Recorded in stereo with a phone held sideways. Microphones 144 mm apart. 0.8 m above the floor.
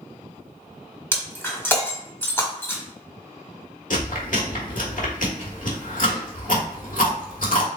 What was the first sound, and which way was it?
Breaking glass, 15° left (ahead or behind).